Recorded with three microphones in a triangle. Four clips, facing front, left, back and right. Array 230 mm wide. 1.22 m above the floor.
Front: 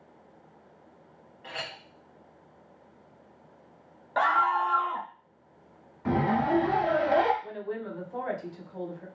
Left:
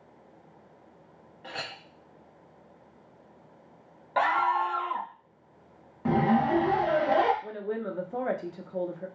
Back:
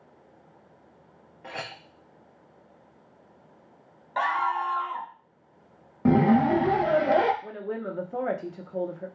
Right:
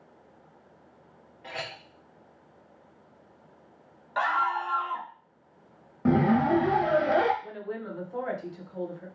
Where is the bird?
I don't hear a bird.